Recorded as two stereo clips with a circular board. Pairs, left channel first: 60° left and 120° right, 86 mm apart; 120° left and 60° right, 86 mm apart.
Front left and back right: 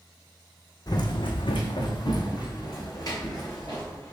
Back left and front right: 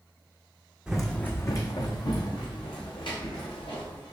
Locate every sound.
0.9 s running footsteps: 20° left, 0.6 m; by 4.1 s 110° left, 3 m